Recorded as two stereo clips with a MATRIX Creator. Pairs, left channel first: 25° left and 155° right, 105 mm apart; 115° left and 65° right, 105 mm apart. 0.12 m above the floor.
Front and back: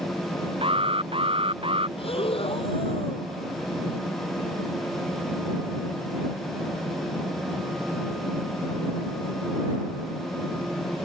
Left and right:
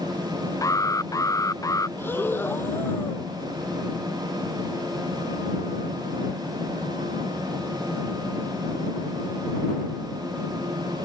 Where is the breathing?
45° left.